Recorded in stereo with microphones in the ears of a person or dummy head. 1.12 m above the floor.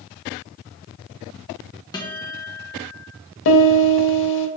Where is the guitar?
15° left (ahead or behind), 0.8 m.